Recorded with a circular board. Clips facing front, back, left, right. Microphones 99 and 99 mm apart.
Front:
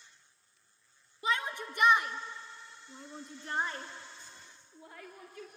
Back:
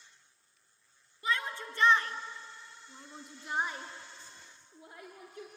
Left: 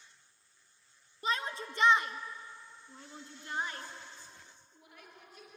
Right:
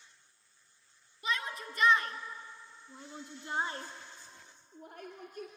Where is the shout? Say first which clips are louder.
Front 1 dB, left 1 dB; 60° left, 1.5 m; by 5.5 s 115° right, 2 m.